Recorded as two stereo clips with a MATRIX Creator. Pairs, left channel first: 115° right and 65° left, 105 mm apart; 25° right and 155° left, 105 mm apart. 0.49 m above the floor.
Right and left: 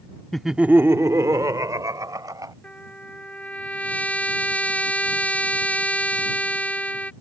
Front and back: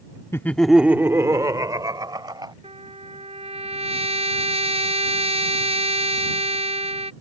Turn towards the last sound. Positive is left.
turn(degrees=170)